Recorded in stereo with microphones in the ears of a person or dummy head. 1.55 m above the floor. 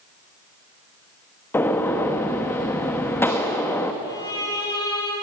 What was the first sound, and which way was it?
A gunshot, 10° left (ahead or behind).